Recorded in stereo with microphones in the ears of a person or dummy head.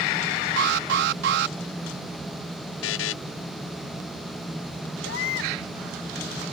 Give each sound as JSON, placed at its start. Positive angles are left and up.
{"t": 0.6, "sound": "an alarm", "side_deg": -70}
{"t": 2.8, "sound": "a buzzer", "side_deg": 65}
{"t": 5.0, "sound": "a baby crying", "side_deg": 70}